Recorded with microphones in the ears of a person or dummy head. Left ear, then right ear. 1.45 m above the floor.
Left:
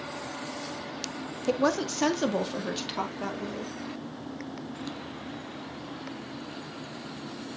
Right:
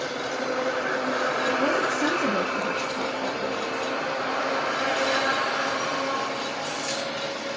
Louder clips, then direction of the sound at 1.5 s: Left 1 dB; 60° left (ahead or behind).